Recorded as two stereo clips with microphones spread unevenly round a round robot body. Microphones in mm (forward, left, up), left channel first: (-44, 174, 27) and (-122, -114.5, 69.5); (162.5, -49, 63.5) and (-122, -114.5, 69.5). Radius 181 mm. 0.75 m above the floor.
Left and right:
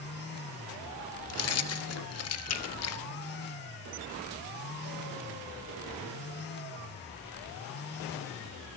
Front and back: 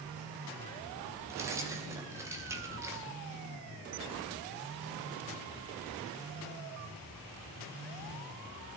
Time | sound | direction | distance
1.3 | keys jangling | 110° left | 0.6 m